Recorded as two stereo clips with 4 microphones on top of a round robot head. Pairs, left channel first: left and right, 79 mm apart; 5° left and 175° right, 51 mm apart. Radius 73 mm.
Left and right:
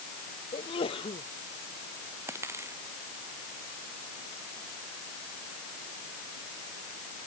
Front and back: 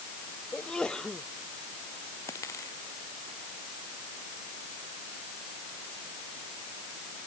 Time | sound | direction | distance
0.5 | a sneeze | 80° left | ?
2.3 | a dropped coin | 35° right | ?